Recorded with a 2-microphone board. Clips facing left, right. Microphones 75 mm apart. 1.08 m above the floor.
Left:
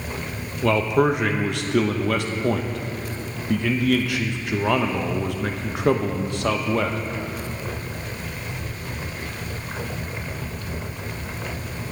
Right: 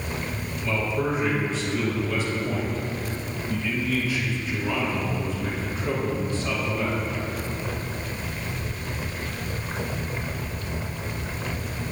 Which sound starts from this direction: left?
A man speaking, at 0.6 s.